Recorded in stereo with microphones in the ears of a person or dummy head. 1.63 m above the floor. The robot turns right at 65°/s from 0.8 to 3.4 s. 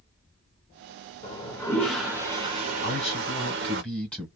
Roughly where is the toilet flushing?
Behind left.